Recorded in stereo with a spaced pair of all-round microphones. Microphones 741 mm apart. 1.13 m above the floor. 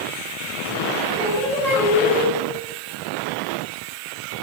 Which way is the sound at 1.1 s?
5° left (ahead or behind).